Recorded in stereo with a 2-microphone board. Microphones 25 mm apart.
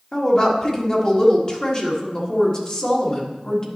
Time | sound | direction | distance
0.1 | a woman speaking | 30° left (ahead or behind) | 1.6 m